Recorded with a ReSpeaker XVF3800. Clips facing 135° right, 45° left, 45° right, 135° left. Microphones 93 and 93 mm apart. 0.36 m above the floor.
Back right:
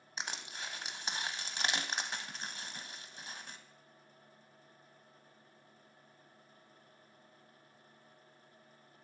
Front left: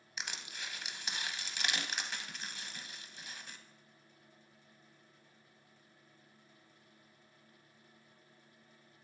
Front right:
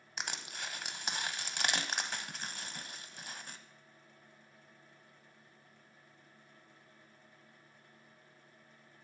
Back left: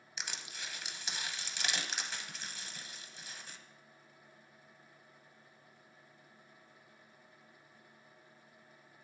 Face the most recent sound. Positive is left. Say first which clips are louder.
# back right 2 dB, front right 4 dB
turn(degrees=-80)